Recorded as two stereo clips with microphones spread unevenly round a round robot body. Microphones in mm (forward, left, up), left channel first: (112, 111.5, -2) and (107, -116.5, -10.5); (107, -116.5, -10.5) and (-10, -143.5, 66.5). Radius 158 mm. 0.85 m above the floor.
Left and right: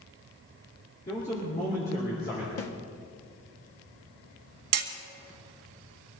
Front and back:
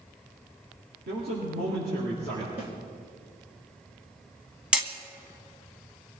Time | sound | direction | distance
1.1 | a man speaking | 155° left | 2.5 m
2.6 | a snare drum | 95° left | 1.9 m
4.7 | hammering | 95° right | 1.8 m